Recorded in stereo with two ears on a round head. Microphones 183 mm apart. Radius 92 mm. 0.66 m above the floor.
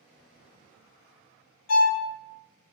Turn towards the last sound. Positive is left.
turn(degrees=85)